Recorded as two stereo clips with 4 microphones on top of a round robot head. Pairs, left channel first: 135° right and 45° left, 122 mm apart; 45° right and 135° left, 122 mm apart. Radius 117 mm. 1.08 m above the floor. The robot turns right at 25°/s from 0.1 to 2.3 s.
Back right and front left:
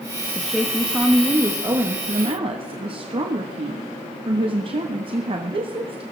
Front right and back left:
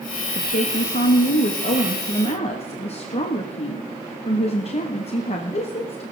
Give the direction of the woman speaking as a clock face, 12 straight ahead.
2 o'clock.